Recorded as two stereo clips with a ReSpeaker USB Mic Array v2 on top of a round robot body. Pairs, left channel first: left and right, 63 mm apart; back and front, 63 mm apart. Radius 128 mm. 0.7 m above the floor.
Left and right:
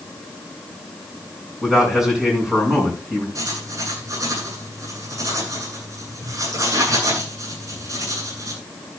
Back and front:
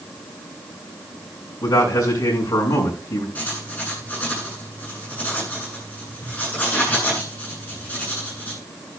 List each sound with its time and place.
1.6 s a man speaking: 175° right, 8 m
3.4 s writing: 115° right, 8.5 m